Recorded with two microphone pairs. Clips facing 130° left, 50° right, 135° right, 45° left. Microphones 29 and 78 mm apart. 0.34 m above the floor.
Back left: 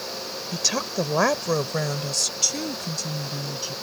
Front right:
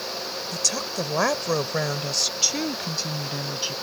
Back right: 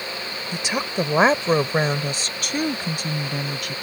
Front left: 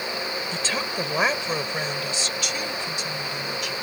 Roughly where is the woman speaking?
Behind.